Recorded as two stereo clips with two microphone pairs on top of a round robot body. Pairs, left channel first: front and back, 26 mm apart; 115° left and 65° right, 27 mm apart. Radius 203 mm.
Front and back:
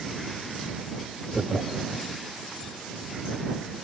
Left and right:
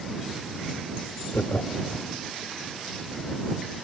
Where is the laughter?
135° left.